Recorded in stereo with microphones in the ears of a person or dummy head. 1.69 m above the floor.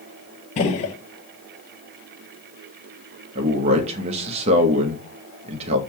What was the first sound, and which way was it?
A gunshot, 35° left (ahead or behind).